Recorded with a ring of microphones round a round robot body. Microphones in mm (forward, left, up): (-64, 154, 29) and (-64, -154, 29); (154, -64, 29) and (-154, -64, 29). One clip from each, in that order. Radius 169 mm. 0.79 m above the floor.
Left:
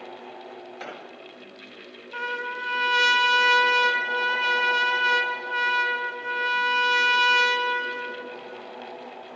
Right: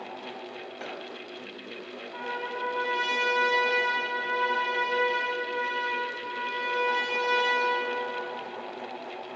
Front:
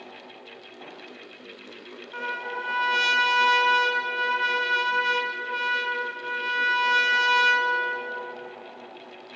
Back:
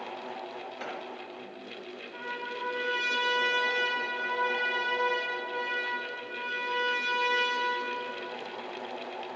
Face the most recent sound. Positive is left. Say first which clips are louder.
# left 4 dB, front 6 dB
turn(degrees=55)